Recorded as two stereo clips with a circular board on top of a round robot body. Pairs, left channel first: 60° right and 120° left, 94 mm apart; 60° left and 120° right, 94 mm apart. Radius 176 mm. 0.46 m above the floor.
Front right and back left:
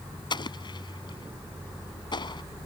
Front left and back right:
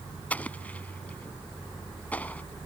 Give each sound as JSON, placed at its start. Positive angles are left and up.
{"t": 0.3, "sound": "an explosion", "azimuth_deg": -15}